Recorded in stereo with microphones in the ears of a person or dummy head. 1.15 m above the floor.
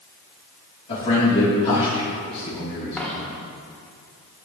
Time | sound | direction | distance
0.9 | a man speaking | 35° left (ahead or behind) | 2.5 m
3.0 | a dropped coin | centre (ahead or behind) | 1.4 m